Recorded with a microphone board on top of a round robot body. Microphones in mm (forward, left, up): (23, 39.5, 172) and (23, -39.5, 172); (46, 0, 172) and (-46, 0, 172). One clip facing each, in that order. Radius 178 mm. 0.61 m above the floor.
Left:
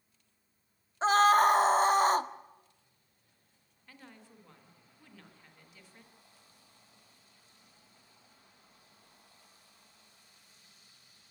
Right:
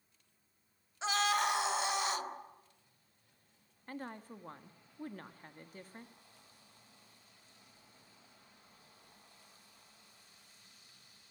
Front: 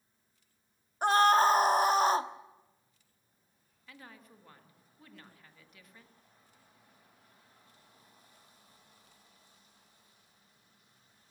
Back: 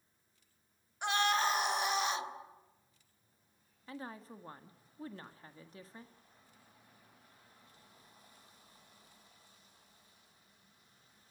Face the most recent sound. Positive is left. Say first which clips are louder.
# right 9 dB, back 7 dB
turn(degrees=-125)